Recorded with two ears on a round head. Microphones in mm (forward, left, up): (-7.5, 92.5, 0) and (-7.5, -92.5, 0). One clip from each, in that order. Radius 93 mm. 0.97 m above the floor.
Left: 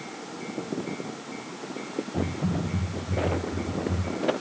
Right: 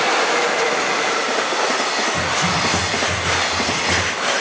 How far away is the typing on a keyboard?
About 4 m.